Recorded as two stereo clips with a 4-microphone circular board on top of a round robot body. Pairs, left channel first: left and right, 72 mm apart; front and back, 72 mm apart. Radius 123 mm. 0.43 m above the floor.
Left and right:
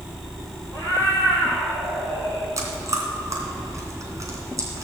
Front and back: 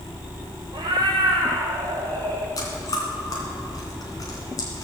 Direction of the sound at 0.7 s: 145° right.